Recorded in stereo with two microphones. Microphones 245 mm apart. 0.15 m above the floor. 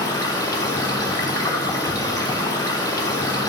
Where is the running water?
15° left (ahead or behind), 1.6 m.